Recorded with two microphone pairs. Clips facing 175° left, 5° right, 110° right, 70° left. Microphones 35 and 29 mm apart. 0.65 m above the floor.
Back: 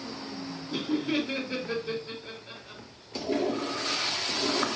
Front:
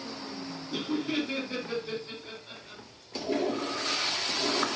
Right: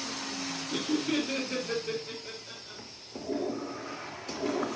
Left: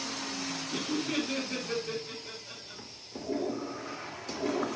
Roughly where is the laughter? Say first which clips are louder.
Back 2 dB, right 3 dB; behind right.